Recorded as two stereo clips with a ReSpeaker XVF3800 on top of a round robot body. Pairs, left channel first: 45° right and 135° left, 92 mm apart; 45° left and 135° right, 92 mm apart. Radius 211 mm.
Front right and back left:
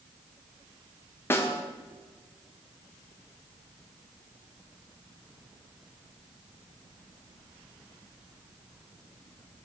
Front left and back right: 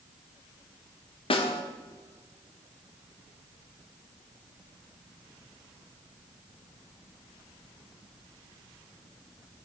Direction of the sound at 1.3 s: 20° left.